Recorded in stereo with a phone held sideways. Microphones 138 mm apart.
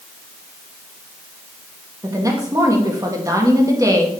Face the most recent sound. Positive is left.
turn(degrees=-25)  # may be behind; listen again after turning